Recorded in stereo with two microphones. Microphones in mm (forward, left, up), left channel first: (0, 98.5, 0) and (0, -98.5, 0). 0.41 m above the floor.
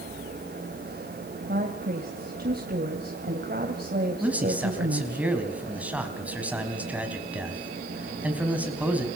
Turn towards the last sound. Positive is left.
turn(degrees=-5)  # may be behind; listen again after turning